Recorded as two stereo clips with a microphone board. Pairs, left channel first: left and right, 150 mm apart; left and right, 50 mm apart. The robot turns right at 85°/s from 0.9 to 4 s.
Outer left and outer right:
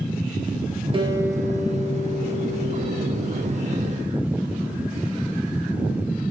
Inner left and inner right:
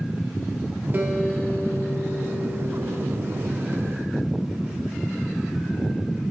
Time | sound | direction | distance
0.9 | a guitar | 35° right | 1.4 m